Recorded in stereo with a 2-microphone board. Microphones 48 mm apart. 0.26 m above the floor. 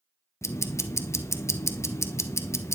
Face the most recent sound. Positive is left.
turn(degrees=80)